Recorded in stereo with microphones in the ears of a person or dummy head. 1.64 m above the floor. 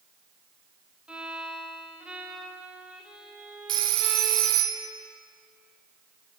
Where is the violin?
10° right (ahead or behind), 1.1 m.